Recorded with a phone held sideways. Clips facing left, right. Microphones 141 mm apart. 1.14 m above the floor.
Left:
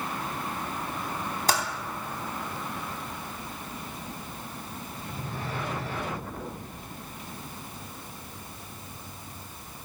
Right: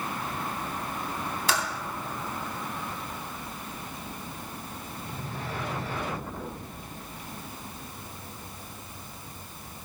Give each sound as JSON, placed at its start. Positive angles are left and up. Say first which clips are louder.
{"t": 1.5, "sound": "typing on a keyboard", "louder": "left 2 dB", "side_deg": 45, "distance_m": 2.0}